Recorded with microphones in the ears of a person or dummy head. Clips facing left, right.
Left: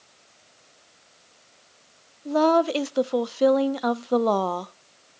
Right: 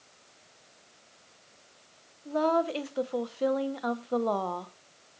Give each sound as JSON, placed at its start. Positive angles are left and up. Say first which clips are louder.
{"t": 2.2, "sound": "a woman speaking", "louder": "left 7 dB", "side_deg": 60, "distance_m": 0.6}